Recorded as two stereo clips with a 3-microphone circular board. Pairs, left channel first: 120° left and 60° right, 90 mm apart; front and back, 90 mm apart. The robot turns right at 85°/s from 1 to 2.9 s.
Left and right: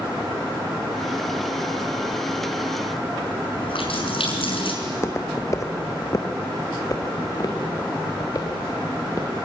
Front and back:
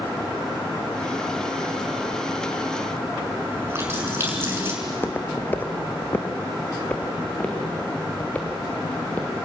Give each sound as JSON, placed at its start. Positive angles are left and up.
{"t": 3.5, "sound": "a running tap", "azimuth_deg": 115, "distance_m": 6.5}
{"t": 4.8, "sound": "footsteps", "azimuth_deg": 65, "distance_m": 1.9}